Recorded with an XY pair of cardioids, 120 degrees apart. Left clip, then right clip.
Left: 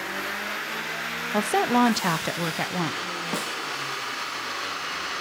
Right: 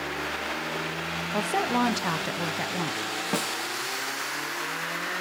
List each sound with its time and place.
1.3 s a woman speaking: 25° left, 0.7 m
3.3 s a snare drum: 15° right, 1.6 m